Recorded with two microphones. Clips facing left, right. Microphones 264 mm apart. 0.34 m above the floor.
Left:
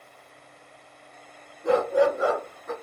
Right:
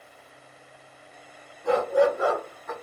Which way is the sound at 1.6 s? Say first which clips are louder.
Even; 20° left (ahead or behind).